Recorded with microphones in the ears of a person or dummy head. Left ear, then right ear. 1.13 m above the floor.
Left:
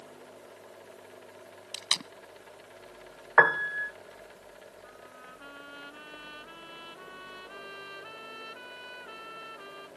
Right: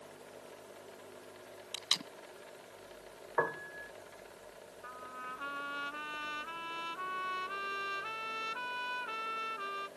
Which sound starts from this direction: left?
A piano, at 3.4 s.